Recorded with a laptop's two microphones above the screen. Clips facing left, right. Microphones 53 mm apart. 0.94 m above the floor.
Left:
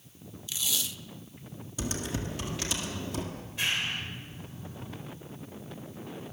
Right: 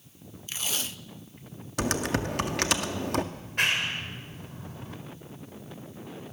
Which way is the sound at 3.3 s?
65° right (ahead or behind).